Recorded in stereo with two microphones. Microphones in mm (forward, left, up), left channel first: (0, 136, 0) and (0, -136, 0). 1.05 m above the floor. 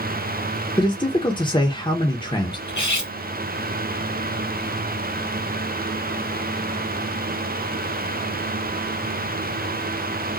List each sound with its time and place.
0.8 s a man speaking: 15° left (ahead or behind), 1.2 m
2.7 s cutlery clinking: 80° left, 1.6 m